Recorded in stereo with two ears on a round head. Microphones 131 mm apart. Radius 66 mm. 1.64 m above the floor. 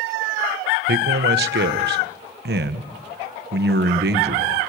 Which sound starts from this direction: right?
A man speaking, at 0.9 s.